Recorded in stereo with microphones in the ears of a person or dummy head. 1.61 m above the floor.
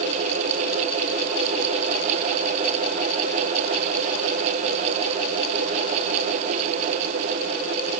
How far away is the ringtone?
I don't hear a ringtone.